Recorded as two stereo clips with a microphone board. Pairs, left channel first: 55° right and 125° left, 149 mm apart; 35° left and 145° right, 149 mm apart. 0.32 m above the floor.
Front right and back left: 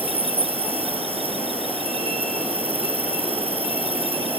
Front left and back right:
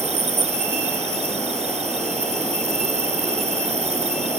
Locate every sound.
0.0 s an insect: 175° left